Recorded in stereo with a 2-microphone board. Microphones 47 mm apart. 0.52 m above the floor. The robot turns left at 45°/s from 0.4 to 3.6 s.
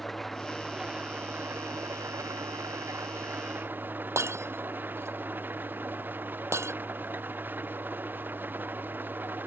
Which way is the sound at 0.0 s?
Straight ahead.